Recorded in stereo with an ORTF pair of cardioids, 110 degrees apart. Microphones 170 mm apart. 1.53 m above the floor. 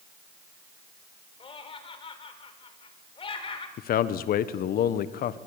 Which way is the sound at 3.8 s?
60° left.